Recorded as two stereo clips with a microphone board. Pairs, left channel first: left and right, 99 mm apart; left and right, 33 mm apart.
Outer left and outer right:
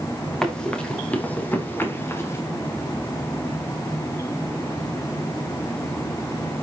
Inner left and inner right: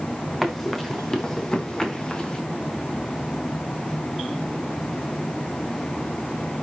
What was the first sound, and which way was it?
Running footsteps, 5° left (ahead or behind).